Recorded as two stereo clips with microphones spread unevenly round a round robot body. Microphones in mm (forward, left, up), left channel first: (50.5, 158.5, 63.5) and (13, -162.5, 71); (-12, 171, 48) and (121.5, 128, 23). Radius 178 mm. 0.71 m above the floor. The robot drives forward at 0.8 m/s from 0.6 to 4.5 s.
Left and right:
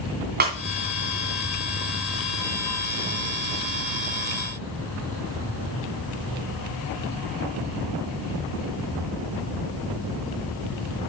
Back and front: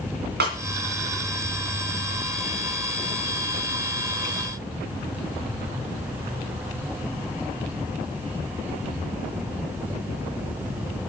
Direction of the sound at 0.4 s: 35° right.